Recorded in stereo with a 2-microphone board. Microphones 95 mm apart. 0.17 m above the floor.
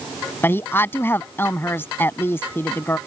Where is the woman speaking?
25° left (ahead or behind).